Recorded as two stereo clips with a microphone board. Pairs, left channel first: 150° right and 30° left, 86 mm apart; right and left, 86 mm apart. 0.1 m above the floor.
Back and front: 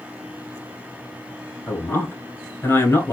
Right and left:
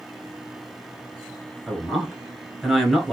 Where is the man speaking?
175° left, 1.1 m.